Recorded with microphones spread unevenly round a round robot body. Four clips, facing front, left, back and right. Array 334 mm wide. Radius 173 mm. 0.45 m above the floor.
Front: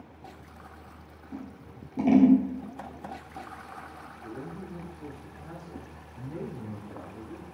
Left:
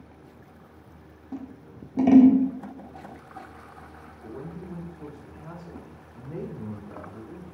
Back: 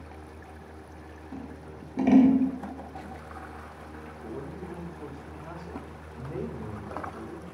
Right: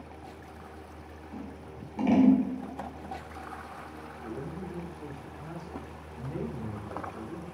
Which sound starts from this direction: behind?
A man speaking, at 4.2 s.